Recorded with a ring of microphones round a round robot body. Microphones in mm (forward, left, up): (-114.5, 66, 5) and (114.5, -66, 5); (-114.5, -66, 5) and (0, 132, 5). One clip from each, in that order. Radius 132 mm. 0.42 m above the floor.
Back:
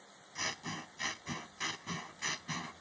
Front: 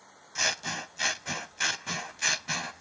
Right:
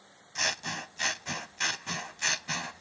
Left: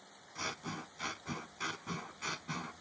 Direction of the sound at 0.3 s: 80° right.